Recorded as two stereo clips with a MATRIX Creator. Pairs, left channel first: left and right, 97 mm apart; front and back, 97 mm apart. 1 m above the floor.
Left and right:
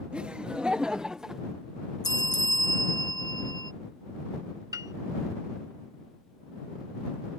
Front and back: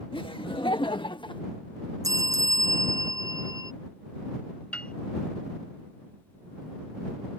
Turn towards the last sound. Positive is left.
turn(degrees=-70)